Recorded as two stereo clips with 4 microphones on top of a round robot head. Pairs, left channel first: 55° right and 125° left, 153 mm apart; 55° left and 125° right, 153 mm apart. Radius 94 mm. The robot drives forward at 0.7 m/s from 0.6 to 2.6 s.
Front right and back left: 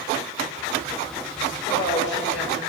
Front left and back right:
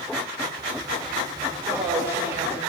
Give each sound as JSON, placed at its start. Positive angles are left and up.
{"t": 1.6, "sound": "a woman speaking", "azimuth_deg": -45, "distance_m": 6.0}